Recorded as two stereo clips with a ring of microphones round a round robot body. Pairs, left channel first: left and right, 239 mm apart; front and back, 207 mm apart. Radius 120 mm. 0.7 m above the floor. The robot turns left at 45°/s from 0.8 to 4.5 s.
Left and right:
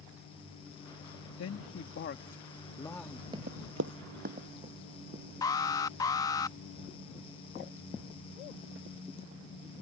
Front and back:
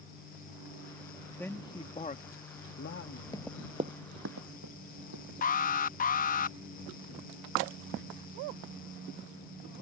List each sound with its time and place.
1.4 s a man speaking: 80° left; by 3.2 s straight ahead
3.3 s running footsteps: 50° right; by 5.2 s 160° right
5.4 s an alarm: 20° left